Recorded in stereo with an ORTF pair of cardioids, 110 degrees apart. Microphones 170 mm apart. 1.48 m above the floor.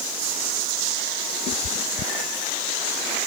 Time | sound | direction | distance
1.5 | a cat meowing | 65° left | ?